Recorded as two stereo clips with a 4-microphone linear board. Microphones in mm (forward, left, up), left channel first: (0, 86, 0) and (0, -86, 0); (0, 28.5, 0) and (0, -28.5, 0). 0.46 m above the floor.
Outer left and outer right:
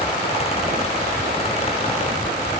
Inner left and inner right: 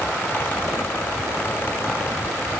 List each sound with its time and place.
Only background noise.